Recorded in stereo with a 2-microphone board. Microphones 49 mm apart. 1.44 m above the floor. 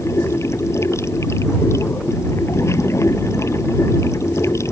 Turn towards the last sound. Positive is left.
turn(degrees=80)